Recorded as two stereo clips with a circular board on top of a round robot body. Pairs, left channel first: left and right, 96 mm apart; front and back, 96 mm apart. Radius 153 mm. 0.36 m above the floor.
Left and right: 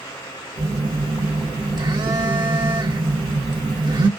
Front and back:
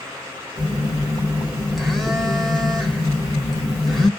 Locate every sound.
0.6 s a phone buzzing: 90° right, 1.6 m